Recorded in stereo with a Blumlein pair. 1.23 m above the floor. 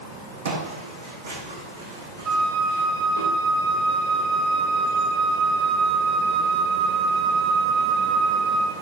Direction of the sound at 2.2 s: 40° right.